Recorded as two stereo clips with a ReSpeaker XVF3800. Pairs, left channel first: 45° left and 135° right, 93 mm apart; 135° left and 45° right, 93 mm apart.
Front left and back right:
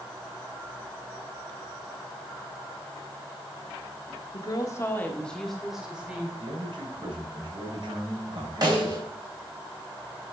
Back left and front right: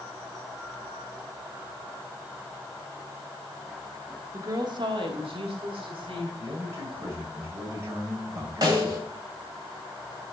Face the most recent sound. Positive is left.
turn(degrees=-90)